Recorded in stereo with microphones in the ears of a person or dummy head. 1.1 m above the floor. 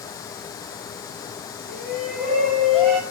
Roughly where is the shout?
Centre.